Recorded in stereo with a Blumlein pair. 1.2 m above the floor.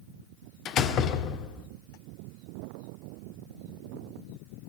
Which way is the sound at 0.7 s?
30° left.